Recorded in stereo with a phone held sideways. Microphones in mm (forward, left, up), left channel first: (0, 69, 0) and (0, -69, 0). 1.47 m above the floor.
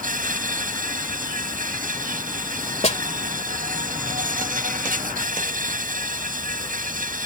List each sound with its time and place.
0.0 s an insect: 75° right (ahead or behind)
2.8 s a snare drum: 50° left (ahead or behind)